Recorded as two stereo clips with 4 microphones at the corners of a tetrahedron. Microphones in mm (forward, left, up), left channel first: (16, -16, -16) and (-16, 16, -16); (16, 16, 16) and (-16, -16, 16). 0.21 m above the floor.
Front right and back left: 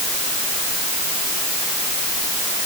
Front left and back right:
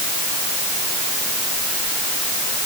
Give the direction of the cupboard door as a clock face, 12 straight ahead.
I don't hear a cupboard door.